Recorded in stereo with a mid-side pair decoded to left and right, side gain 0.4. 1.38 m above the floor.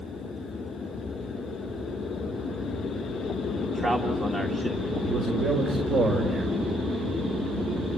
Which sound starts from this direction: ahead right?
A man speaking, at 3.6 s.